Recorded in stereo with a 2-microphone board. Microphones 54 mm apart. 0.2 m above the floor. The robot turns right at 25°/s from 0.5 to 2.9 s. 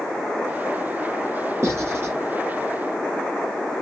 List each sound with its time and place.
1.6 s writing: 50° right (ahead or behind), 1.8 m; by 2.1 s 40° right (ahead or behind), 1.8 m